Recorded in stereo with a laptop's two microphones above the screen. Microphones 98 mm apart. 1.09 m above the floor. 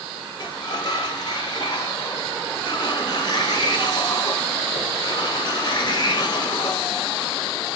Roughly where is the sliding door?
Left.